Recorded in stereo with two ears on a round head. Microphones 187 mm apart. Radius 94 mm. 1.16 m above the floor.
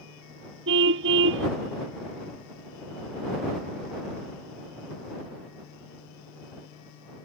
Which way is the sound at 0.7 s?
55° right (ahead or behind).